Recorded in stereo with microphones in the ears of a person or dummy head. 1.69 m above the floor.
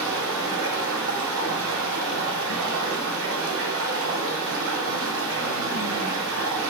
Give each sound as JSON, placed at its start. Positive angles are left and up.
{"t": 0.0, "sound": "running water", "side_deg": -70, "distance_m": 0.7}